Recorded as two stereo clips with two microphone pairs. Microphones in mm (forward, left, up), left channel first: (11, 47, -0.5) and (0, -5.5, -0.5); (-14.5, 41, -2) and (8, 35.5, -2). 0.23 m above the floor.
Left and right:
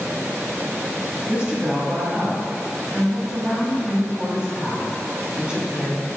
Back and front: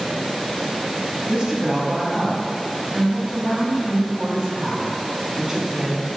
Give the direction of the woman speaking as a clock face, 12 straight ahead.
2 o'clock.